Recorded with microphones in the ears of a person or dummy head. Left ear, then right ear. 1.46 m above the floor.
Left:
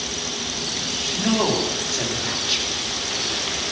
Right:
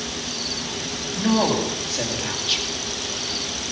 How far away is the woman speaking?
About 2.5 m.